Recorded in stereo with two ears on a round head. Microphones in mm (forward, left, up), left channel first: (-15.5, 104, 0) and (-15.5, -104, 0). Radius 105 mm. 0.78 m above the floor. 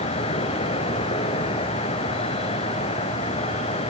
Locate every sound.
0.0 s an insect: 25° left (ahead or behind), 1.0 m